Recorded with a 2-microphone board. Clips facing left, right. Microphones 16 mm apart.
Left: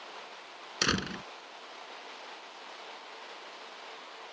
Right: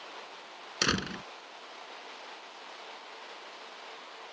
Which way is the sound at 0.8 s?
5° right (ahead or behind).